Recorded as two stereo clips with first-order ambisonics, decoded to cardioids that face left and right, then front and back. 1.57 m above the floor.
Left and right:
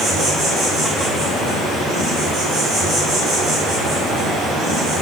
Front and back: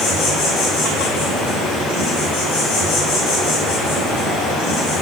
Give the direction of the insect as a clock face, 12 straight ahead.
12 o'clock.